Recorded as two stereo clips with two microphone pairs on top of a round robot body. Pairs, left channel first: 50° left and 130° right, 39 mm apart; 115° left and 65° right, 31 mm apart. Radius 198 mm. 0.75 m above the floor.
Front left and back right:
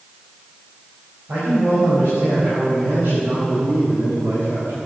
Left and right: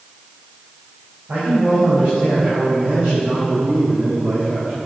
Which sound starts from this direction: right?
A man speaking, at 1.3 s.